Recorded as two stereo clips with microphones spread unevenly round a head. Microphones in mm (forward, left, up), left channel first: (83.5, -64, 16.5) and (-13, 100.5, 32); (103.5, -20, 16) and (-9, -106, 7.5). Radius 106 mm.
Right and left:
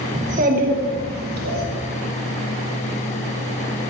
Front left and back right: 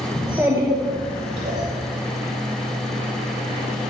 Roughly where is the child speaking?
Behind left.